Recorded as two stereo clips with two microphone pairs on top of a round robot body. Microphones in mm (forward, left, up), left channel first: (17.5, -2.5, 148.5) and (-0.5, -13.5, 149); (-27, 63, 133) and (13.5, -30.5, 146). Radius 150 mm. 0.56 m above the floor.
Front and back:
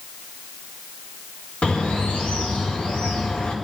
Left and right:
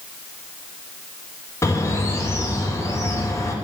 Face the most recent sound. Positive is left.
turn(degrees=55)